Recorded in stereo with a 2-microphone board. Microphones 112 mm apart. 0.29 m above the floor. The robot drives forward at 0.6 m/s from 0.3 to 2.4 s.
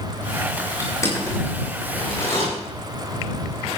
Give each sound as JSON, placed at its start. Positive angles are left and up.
{"t": 0.8, "sound": "crushing", "side_deg": 25, "distance_m": 6.0}